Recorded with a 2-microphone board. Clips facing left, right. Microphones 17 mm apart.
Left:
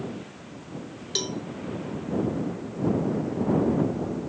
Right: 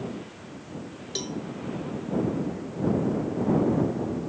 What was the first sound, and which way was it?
A cowbell, 20° left (ahead or behind).